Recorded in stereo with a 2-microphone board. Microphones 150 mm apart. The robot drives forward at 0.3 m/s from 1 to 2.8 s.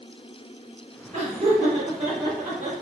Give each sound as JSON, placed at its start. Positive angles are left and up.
{"t": 1.1, "sound": "laughter", "side_deg": -55, "distance_m": 1.5}